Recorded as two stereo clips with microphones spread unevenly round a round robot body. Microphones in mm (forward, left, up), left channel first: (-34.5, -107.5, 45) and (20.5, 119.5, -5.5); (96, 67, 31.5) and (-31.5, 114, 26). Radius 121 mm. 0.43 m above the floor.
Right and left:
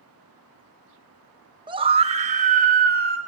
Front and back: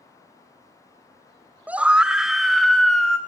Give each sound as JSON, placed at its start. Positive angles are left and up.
{"t": 1.7, "sound": "a scream", "azimuth_deg": 95, "distance_m": 1.5}